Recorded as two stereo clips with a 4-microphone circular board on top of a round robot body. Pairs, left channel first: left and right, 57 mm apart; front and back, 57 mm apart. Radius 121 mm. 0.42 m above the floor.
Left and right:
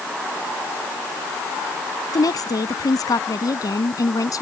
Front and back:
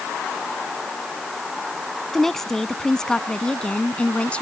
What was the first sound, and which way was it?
A woman speaking, 85° left.